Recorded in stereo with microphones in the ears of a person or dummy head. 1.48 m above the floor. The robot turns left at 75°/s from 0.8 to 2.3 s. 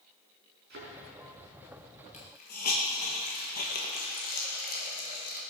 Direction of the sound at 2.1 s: 35° left (ahead or behind).